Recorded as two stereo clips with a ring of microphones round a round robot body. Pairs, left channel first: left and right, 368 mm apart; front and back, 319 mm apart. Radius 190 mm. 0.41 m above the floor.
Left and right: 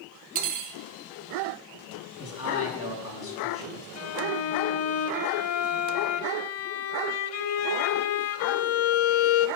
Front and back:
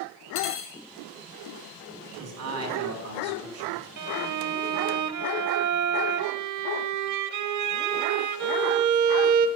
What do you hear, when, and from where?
0.3 s cutlery clinking: 55° right, 1.3 m
2.2 s a man speaking: 140° left, 4.5 m
4.0 s a violin: 145° left, 0.8 m